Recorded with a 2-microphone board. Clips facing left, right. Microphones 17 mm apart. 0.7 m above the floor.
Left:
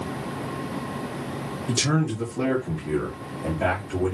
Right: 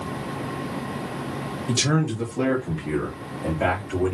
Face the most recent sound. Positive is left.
turn(degrees=-55)  # may be behind; listen again after turning